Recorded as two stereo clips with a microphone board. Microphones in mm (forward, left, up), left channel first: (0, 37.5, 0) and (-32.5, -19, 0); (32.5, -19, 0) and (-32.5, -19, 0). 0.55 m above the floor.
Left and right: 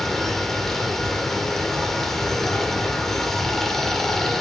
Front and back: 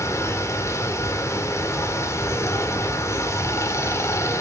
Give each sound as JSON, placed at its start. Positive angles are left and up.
{"t": 0.0, "sound": "running water", "azimuth_deg": -25, "distance_m": 1.5}